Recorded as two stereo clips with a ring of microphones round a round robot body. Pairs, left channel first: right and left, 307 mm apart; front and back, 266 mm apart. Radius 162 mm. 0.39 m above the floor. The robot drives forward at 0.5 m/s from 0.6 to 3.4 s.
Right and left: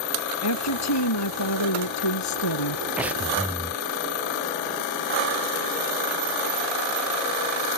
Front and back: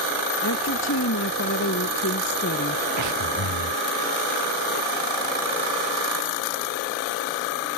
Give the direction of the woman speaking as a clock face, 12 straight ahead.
2 o'clock.